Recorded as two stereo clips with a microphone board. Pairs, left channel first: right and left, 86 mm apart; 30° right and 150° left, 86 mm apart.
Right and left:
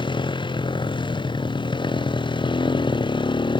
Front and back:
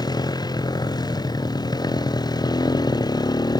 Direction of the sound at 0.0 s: 70° right.